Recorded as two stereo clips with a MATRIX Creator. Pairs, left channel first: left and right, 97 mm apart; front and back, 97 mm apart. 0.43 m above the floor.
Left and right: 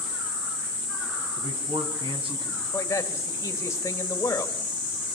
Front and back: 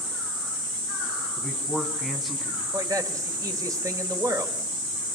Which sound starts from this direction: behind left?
A man speaking, at 2.7 s.